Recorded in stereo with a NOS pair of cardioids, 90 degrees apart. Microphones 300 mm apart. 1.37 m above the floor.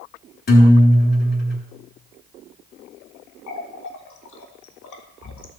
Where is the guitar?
30° left, 4 m.